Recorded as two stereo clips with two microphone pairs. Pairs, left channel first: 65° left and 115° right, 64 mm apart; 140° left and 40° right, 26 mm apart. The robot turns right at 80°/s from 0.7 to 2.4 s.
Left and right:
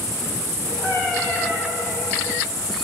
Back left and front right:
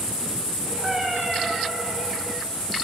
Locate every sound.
0.8 s a cat meowing: 20° left, 4 m; by 1.6 s 85° left, 4 m